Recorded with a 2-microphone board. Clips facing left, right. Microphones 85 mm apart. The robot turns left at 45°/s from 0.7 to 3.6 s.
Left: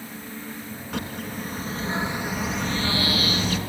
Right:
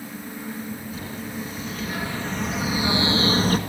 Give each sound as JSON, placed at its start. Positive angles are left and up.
{"t": 0.9, "sound": "a bird", "azimuth_deg": 75, "distance_m": 3.5}